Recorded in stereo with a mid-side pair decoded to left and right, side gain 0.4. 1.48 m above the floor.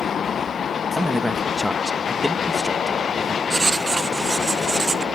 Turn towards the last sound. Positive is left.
turn(degrees=-30)